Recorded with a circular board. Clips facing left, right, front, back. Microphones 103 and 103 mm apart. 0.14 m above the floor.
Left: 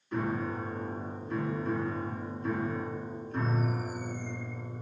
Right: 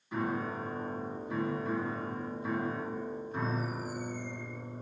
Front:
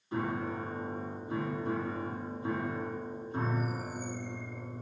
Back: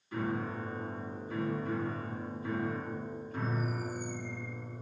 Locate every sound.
0.1 s a piano: 15° right, 1.2 m